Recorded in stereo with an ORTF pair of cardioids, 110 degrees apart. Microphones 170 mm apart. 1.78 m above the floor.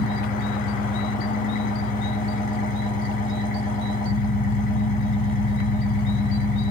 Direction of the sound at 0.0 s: 45° left.